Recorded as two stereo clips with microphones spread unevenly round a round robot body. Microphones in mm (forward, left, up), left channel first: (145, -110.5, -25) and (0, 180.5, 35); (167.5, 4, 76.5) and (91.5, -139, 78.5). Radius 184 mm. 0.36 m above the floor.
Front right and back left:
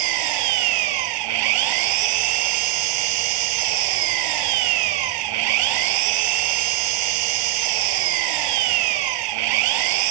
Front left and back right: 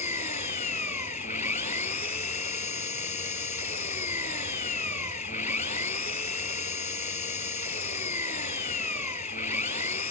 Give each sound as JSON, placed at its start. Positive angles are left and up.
{"t": 0.0, "sound": "an engine running", "azimuth_deg": 130}